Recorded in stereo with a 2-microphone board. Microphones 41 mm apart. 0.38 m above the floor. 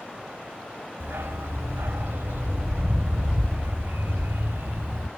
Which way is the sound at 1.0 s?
70° right (ahead or behind).